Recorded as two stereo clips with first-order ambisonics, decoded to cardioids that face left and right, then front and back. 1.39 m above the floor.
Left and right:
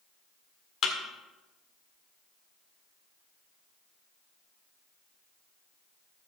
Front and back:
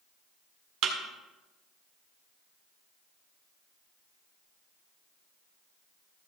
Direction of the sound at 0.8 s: 145° left.